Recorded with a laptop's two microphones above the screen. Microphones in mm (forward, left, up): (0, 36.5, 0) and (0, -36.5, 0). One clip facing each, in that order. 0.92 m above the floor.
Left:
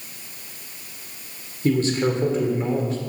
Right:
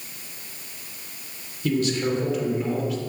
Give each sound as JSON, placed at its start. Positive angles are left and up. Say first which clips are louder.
{"t": 1.6, "sound": "a man speaking", "louder": "left 3 dB", "side_deg": 35, "distance_m": 3.0}